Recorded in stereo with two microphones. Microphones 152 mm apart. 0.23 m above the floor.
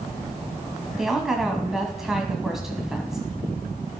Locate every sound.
1.0 s a woman speaking: centre (ahead or behind), 1.8 m